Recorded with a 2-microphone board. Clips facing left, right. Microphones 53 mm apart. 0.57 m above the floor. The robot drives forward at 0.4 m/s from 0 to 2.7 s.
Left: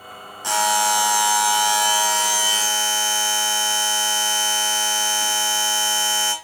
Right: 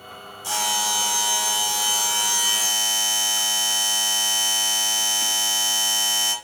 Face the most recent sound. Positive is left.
turn(degrees=50)  # may be behind; listen again after turning